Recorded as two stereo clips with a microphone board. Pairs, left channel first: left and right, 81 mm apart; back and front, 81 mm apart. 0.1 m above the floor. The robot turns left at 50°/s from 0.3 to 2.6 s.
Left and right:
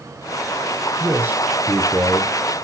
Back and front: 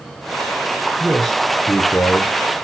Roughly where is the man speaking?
Right.